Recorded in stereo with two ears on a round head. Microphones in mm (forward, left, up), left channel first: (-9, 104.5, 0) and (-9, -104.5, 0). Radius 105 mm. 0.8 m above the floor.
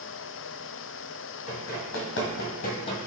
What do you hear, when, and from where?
1.5 s running footsteps: 65° left (ahead or behind), 1.8 m; by 3.0 s 20° left (ahead or behind), 0.9 m